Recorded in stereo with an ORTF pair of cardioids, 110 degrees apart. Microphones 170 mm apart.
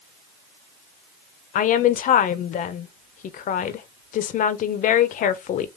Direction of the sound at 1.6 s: 50° left.